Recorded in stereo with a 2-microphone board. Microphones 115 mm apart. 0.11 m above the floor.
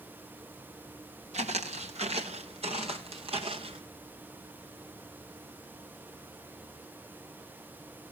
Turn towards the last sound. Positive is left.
turn(degrees=-55)  # may be behind; listen again after turning